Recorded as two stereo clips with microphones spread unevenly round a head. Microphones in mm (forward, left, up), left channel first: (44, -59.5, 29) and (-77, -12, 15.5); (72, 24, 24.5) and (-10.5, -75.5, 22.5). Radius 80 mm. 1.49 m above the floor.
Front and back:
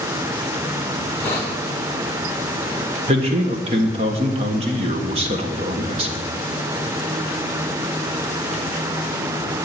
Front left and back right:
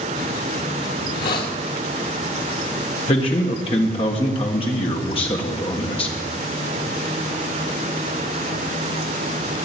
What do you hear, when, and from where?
1.0 s a hiss: 55° left, 1.7 m
3.1 s a man speaking: 105° left, 1.4 m